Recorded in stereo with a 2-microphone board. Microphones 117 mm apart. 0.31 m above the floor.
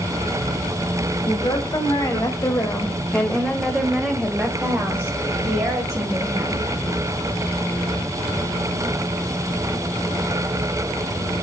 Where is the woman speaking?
35° left (ahead or behind), 2 m; by 6.7 s 25° right (ahead or behind), 3 m.